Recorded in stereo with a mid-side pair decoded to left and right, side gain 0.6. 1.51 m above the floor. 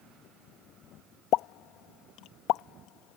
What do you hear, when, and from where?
1.3 s a pop: 65° left